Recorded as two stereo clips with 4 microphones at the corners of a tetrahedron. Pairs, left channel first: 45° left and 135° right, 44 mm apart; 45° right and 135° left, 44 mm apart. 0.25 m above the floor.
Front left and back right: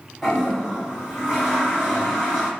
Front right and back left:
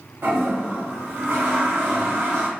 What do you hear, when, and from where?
0.2 s a toilet flushing: 125° left, 2 m